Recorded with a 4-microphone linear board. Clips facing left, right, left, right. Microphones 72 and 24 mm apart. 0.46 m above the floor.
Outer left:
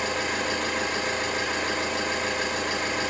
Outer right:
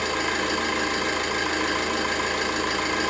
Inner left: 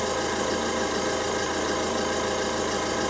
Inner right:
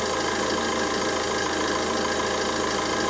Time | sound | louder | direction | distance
0.0 | an engine running | outer right 2 dB, inner right 1 dB | 80° right | 0.8 m